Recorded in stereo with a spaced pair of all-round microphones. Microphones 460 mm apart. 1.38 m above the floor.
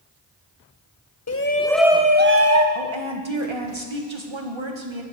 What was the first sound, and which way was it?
A shout, 35° left (ahead or behind).